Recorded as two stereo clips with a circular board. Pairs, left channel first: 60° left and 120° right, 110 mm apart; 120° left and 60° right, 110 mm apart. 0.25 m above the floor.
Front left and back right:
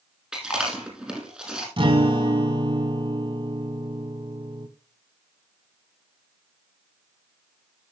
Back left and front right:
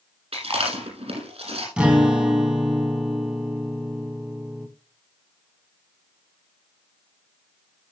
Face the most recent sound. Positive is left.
turn(degrees=-135)